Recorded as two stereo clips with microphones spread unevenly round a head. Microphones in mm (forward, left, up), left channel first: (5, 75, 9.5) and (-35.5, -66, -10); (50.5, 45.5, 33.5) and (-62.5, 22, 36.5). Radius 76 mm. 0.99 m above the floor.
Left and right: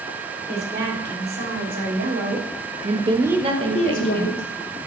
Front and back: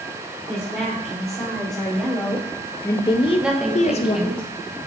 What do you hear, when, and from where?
0.5 s a woman speaking: 80° right, 3 m; by 4.4 s 60° left, 0.9 m
3.4 s a woman speaking: 85° right, 1.0 m